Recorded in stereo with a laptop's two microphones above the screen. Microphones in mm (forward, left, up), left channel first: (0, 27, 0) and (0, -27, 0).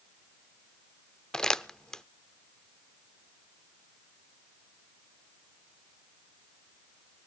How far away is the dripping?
No dripping in this recording.